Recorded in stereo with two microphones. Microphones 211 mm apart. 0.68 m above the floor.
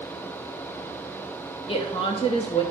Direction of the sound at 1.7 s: 25° left (ahead or behind).